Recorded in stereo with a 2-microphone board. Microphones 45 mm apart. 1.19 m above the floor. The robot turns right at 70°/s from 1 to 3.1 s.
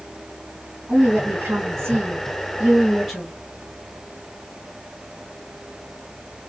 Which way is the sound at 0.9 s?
140° right.